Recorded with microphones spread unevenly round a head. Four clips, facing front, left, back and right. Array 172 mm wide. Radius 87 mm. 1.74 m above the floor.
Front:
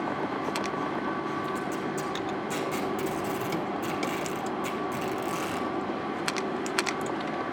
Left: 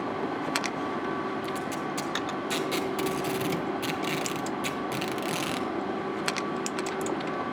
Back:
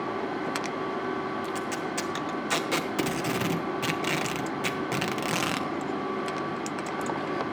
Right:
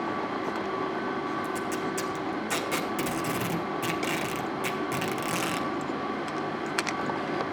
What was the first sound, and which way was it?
Tape being pulled, 175° right.